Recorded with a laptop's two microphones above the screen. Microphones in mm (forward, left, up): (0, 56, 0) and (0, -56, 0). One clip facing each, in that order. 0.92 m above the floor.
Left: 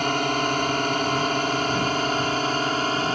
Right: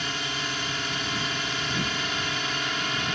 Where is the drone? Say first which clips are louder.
Left 10 dB; 55° left (ahead or behind); by 3.1 s 40° left (ahead or behind).